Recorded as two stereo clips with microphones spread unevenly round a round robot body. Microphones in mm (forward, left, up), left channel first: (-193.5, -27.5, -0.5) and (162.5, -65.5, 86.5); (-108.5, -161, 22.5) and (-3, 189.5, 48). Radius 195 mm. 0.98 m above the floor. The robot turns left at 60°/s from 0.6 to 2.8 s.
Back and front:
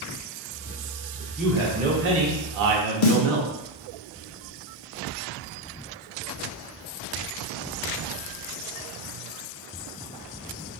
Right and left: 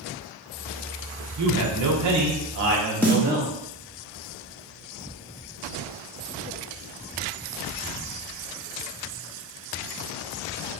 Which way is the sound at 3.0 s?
170° left.